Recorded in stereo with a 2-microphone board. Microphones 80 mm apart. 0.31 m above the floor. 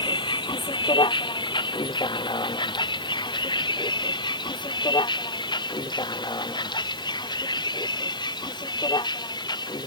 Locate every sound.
0.0 s a vehicle: 85° left; by 9.9 s 65° left (ahead or behind)